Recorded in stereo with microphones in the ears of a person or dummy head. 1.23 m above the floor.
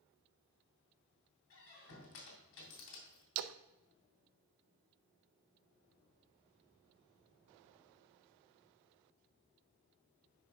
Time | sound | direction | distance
1.5 | a squeak | 70° left (ahead or behind) | 2.5 m
3.4 | a splash | 70° right (ahead or behind) | 0.5 m